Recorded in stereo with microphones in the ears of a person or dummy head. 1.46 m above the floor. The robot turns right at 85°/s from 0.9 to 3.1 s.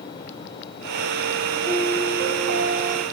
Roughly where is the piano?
Behind right.